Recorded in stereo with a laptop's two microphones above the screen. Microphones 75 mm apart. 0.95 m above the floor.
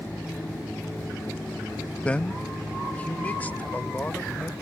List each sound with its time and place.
2.0 s a man speaking: 15° left (ahead or behind); by 4.5 s 25° left (ahead or behind)